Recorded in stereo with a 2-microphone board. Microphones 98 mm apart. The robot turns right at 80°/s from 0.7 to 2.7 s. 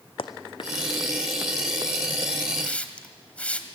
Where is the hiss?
15° left (ahead or behind), 1.4 m.